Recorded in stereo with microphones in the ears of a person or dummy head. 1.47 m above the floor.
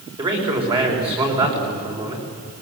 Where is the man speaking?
30° right (ahead or behind), 5 m.